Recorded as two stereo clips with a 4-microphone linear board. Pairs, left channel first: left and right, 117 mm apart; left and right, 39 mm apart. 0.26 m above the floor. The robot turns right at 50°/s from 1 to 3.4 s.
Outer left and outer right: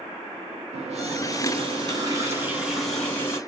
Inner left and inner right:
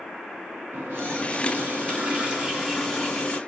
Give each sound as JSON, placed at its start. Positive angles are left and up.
{"t": 0.7, "sound": "a running tap", "azimuth_deg": -90, "distance_m": 1.5}